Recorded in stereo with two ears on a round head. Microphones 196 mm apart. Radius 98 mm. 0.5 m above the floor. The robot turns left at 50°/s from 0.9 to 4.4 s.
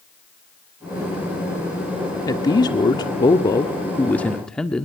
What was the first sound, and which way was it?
A man speaking, 15° left (ahead or behind).